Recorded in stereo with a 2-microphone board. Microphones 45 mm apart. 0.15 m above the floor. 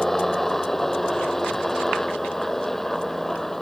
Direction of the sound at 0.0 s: 5° left (ahead or behind).